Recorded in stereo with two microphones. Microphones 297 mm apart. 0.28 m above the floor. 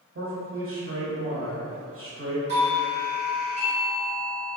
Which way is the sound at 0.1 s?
40° right (ahead or behind).